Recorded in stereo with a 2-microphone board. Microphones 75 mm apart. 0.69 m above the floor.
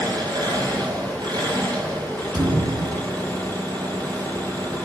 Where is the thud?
60° right (ahead or behind), 9 m.